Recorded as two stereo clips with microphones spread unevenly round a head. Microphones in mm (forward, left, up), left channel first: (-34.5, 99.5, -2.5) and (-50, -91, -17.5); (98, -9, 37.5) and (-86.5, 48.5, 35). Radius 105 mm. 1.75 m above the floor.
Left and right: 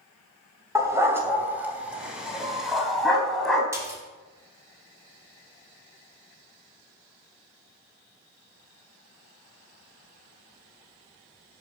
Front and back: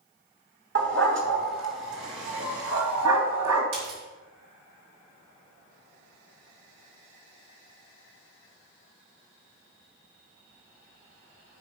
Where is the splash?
170° right, 4 m.